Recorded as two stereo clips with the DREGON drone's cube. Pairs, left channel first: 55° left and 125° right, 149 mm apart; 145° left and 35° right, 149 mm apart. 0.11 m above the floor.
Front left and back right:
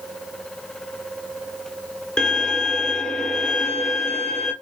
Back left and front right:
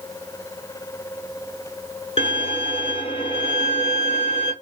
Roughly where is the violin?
Behind left.